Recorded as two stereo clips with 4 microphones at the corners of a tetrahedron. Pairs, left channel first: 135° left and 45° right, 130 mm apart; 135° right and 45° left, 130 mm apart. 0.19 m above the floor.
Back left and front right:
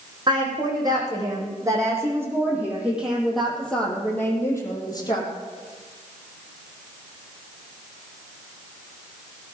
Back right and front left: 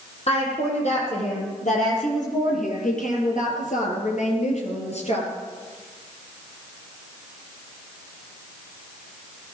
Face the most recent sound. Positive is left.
turn(degrees=-170)